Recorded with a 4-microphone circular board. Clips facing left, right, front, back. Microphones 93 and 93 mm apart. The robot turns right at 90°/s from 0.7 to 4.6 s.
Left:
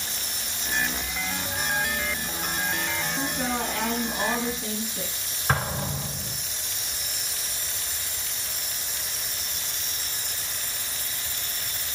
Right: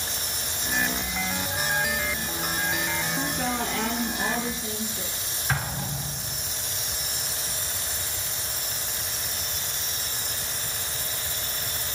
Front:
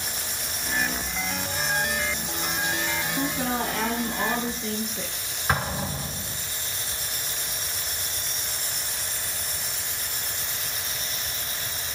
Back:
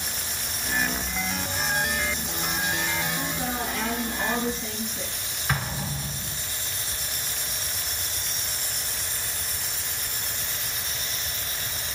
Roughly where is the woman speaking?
Ahead.